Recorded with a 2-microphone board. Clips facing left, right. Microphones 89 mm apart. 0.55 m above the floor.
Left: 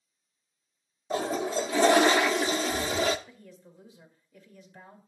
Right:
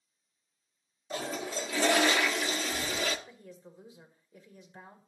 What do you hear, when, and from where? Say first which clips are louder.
1.1 s a toilet flushing: left 7 dB; 30° left (ahead or behind), 0.6 m
3.3 s a woman speaking: right 1 dB; 20° right (ahead or behind), 2 m